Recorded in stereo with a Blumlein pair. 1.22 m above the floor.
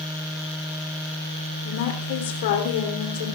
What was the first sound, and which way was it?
A woman speaking, 50° left.